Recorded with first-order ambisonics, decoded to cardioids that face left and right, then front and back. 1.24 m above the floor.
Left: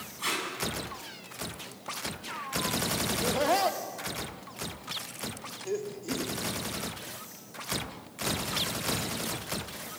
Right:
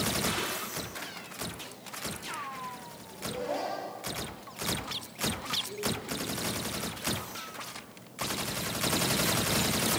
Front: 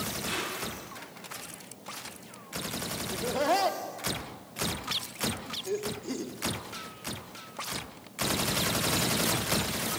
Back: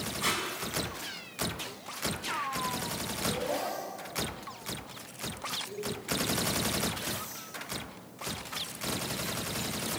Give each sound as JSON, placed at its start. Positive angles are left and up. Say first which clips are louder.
{"t": 0.2, "sound": "tape being pulled", "louder": "even, back 5 dB", "azimuth_deg": 145, "distance_m": 8.0}
{"t": 3.1, "sound": "laughter", "louder": "left 6 dB, front 7 dB", "azimuth_deg": 45, "distance_m": 3.0}